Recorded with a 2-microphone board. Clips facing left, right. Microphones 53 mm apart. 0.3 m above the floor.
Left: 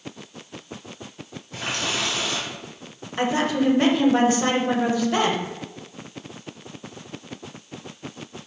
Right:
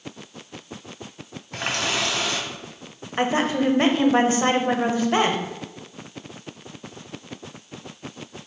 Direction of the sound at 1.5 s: 55° right (ahead or behind).